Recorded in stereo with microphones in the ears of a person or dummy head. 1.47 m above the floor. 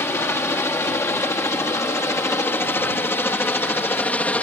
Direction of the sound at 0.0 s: 10° left (ahead or behind).